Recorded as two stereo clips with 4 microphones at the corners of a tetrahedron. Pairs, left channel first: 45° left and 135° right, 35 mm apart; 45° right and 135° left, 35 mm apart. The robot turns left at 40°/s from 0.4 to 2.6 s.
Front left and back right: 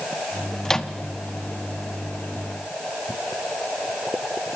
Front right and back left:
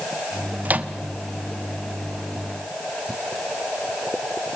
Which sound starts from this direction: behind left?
A microwave, at 0.7 s.